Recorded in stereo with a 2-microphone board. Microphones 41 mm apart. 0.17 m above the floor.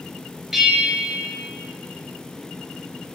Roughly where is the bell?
Centre.